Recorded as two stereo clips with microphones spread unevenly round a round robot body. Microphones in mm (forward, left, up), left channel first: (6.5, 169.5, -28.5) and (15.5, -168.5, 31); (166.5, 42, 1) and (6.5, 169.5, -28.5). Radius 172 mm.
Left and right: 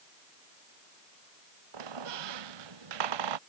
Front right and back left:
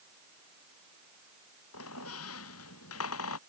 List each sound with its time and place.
1.7 s a squeak: 75° right